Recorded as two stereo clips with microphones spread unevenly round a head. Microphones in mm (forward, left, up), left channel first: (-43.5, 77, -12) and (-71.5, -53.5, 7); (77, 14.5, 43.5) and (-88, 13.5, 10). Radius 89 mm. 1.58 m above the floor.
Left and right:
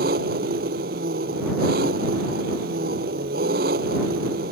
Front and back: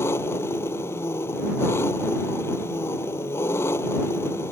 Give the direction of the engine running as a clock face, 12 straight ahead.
3 o'clock.